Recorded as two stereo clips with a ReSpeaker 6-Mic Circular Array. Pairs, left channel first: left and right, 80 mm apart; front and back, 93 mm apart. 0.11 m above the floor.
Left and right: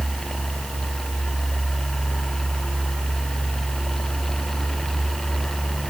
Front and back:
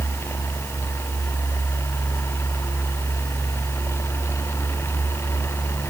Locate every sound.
Only background noise.